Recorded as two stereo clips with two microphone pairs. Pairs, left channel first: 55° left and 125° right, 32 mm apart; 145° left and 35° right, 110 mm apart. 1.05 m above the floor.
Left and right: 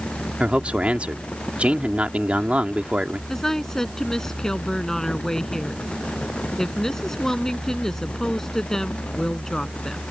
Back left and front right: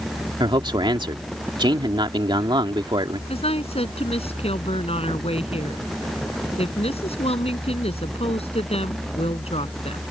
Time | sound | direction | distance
0.4 | a man speaking | 75° right | ?
3.3 | a woman speaking | 135° left | ?